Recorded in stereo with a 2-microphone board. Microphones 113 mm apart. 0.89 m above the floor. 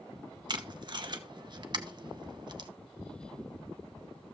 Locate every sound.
0.5 s tape being pulled: 45° right (ahead or behind), 1.0 m